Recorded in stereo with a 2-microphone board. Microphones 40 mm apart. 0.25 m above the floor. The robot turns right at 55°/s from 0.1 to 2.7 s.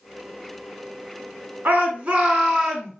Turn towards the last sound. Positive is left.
turn(degrees=0)